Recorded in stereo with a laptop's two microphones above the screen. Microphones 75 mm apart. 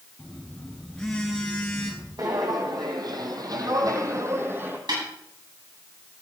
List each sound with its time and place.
0.2 s a phone buzzing: 10° left (ahead or behind), 6.5 m
2.2 s footsteps: 60° right (ahead or behind), 3 m; by 4.8 s 25° right (ahead or behind), 3 m
4.9 s a snare drum: 75° right (ahead or behind), 9.5 m